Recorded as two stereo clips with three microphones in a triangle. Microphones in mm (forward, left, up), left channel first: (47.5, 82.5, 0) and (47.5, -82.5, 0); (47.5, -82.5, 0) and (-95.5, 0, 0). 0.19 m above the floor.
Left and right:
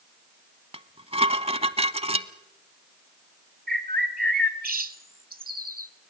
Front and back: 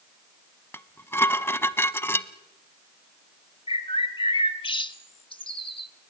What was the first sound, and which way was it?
Dishes clattering, 100° right.